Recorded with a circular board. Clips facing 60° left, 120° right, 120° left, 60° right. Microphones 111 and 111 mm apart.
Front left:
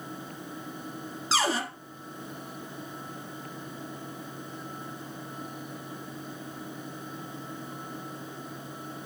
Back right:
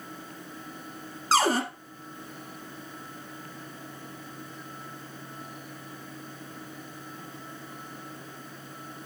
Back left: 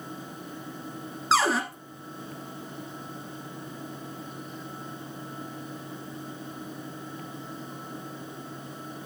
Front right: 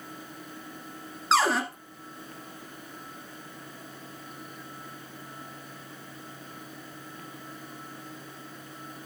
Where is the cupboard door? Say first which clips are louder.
Back right 4 dB, even; 150° right, 1.4 m.